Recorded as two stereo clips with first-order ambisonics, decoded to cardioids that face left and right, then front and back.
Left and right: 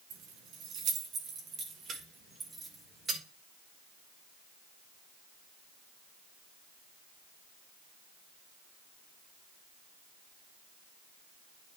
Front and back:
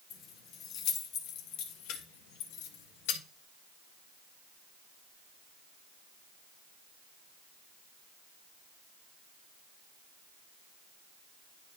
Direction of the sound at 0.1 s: 55° right.